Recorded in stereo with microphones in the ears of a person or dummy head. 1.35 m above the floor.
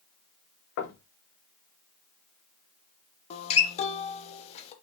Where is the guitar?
35° left (ahead or behind), 0.9 m.